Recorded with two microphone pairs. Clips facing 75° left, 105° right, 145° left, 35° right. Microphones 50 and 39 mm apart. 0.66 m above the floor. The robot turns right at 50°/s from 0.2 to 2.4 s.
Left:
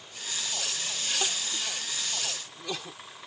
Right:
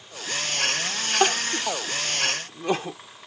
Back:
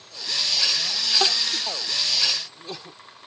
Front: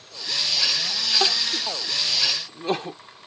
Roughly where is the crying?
Behind right.